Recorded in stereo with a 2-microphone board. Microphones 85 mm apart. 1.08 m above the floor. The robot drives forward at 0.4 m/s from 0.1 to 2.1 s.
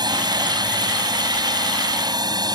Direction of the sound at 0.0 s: 55° right (ahead or behind).